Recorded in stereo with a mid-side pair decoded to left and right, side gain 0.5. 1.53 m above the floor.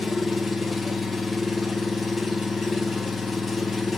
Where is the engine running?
30° left, 1.2 m.